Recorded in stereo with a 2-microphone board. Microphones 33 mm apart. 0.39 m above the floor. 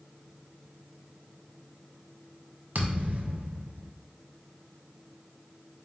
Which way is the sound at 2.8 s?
65° right (ahead or behind).